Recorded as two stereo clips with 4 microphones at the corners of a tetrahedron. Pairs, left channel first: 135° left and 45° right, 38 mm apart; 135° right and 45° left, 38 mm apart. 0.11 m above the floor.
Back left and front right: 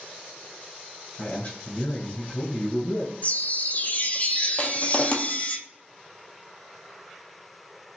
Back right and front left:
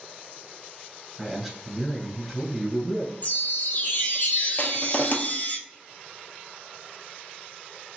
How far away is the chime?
About 0.7 m.